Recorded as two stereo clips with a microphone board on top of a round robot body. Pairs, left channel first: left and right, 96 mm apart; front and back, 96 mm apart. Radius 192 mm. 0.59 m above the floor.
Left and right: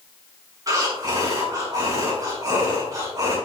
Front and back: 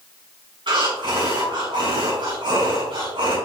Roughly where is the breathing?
Behind right.